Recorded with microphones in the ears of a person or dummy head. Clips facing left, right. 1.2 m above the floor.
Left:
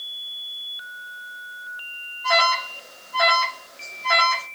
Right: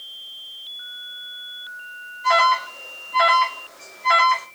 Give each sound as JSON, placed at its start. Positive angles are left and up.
{"t": 2.2, "sound": "an alarm", "side_deg": -35, "distance_m": 7.0}